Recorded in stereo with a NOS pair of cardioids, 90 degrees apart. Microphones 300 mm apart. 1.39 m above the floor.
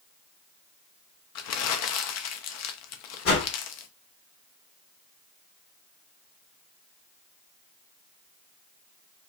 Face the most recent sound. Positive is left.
turn(degrees=50)